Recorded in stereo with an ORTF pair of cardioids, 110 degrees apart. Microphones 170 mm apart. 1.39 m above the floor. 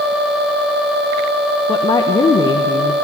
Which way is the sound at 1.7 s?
30° left.